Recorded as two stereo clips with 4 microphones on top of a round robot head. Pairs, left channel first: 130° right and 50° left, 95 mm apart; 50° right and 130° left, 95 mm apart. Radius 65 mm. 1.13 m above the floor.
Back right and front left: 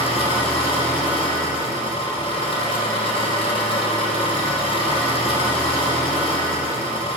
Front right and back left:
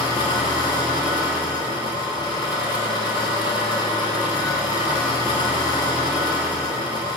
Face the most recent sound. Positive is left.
turn(degrees=-100)